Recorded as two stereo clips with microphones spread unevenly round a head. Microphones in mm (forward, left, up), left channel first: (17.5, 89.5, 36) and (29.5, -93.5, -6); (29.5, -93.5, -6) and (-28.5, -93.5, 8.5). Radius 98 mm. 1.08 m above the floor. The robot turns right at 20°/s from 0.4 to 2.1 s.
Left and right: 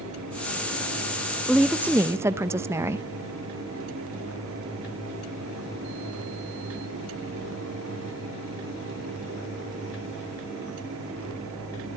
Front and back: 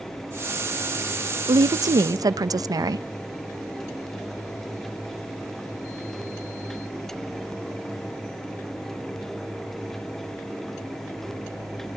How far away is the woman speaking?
About 0.7 m.